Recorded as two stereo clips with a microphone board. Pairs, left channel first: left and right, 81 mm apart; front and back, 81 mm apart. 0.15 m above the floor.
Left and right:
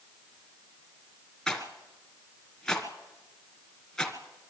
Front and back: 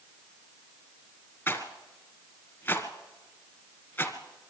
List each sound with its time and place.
1.5 s a rattle: 10° left, 1.7 m